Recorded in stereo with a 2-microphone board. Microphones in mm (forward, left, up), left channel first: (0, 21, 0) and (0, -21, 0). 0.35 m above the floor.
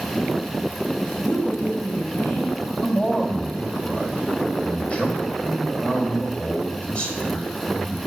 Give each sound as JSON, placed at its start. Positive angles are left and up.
{"t": 1.0, "sound": "a woman speaking", "side_deg": 65, "distance_m": 3.0}
{"t": 2.8, "sound": "a man speaking", "side_deg": 30, "distance_m": 1.9}